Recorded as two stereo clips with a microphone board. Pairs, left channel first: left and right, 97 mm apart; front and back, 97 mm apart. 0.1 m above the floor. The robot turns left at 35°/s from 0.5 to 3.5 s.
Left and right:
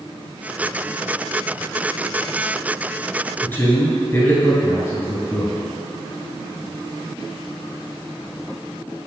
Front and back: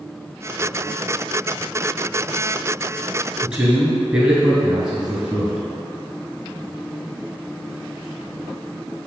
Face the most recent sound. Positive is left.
turn(degrees=110)